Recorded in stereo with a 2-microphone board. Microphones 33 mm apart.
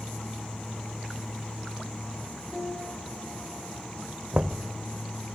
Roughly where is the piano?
Left.